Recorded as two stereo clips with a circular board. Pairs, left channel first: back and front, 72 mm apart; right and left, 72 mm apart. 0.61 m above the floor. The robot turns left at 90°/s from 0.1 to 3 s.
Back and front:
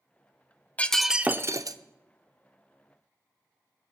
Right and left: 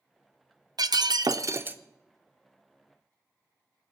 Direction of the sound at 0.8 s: 110° left.